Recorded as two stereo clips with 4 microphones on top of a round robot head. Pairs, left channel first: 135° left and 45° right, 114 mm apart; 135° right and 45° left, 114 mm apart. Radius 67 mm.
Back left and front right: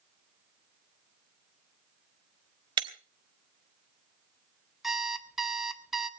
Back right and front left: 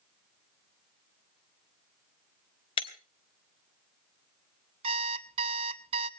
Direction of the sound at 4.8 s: 45° left.